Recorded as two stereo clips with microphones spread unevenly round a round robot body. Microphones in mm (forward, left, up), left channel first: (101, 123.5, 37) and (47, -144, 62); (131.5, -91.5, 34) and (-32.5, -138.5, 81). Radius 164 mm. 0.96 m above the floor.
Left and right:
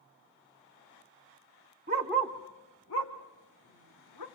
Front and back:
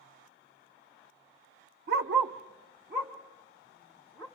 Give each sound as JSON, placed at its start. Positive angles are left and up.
{"t": 1.9, "sound": "a dog barking", "azimuth_deg": -165, "distance_m": 1.0}